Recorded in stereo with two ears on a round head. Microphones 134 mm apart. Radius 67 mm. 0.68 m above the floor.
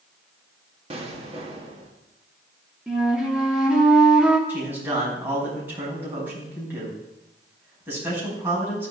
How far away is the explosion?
About 1.3 m.